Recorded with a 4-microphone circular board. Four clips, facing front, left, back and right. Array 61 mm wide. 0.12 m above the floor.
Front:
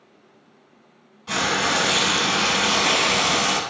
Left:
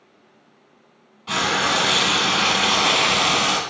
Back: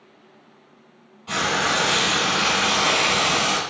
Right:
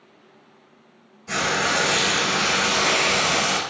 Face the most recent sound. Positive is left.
turn(degrees=90)